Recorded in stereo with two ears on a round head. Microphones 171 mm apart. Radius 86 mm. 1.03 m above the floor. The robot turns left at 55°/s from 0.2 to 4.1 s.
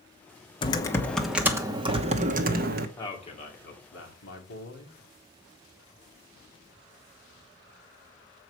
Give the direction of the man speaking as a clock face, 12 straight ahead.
7 o'clock.